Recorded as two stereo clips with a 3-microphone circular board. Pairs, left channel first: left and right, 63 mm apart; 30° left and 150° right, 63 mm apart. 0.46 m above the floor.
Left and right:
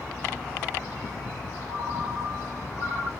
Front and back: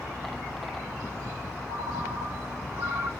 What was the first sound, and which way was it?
A ringtone, 160° right.